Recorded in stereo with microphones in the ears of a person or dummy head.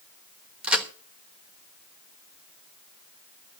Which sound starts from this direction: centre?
A crack, at 0.6 s.